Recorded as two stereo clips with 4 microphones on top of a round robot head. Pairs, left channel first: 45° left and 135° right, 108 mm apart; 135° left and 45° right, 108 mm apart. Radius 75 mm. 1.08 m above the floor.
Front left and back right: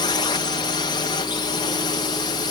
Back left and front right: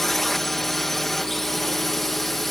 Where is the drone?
50° left.